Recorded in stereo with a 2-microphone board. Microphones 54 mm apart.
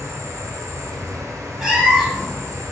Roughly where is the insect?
Right.